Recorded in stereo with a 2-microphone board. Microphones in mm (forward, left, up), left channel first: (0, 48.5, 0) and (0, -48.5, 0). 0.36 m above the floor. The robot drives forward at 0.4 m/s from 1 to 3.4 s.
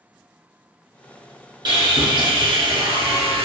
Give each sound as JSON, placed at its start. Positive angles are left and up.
{"t": 1.6, "sound": "sawing", "side_deg": -50, "distance_m": 1.7}